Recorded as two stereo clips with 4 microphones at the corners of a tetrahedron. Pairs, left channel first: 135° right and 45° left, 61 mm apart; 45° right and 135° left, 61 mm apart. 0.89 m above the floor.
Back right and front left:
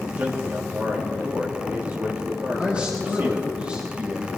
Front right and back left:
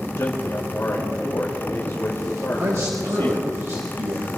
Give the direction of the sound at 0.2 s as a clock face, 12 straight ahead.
12 o'clock.